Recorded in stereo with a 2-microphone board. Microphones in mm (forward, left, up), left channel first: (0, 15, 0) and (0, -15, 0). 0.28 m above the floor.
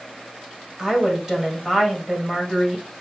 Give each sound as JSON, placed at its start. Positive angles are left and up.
{"t": 0.8, "sound": "a woman speaking", "side_deg": -15, "distance_m": 1.4}